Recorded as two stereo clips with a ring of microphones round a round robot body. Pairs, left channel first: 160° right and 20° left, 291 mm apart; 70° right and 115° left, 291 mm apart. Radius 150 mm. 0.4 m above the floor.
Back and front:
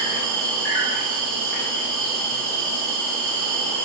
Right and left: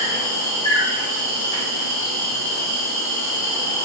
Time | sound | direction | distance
0.0 | an insect | 125° left | 1.3 m